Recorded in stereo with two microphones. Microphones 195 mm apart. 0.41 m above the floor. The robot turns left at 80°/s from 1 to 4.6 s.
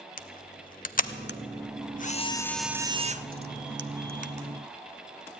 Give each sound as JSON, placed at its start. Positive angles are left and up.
{"t": 0.2, "sound": "a camera shutter", "side_deg": 45, "distance_m": 0.6}